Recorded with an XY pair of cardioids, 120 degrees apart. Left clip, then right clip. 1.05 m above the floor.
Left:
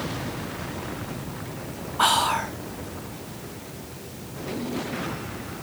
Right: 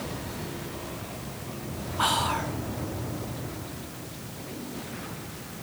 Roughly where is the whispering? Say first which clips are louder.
Left 5 dB; ahead left.